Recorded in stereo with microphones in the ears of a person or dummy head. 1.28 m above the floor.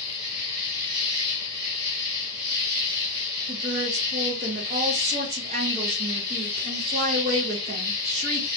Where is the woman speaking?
35° right (ahead or behind), 0.6 m.